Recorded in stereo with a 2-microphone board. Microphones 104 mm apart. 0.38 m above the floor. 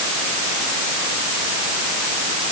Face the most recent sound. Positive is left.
No sound to turn to.